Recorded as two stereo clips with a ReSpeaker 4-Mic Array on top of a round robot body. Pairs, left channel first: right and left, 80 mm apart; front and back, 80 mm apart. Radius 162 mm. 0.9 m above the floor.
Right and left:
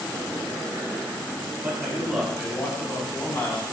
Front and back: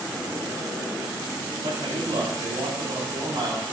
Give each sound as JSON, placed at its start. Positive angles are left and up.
{"t": 1.6, "sound": "a man speaking", "azimuth_deg": 160, "distance_m": 3.0}